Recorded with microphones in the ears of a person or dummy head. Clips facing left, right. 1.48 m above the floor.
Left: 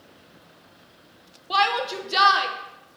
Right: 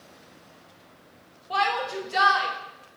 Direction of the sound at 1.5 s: 50° left (ahead or behind).